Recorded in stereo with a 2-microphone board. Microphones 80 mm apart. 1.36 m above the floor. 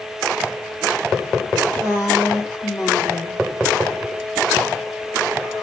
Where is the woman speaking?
30° left (ahead or behind), 2 m; by 3.4 s 50° left (ahead or behind), 3 m.